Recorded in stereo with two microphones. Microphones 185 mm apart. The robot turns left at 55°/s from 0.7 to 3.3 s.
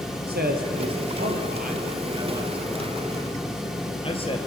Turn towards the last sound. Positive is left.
turn(degrees=30)  # may be behind; listen again after turning